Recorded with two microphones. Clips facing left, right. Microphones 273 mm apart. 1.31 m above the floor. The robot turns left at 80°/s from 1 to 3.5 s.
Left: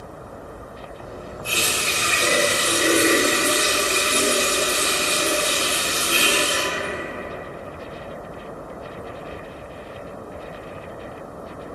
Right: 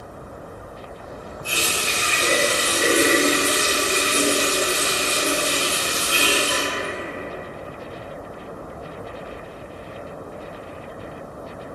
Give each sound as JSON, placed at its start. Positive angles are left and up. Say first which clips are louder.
{"t": 1.4, "sound": "a running tap", "louder": "even", "azimuth_deg": -115, "distance_m": 1.5}